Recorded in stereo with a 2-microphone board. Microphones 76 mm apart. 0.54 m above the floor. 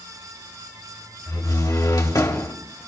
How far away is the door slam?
About 1.8 m.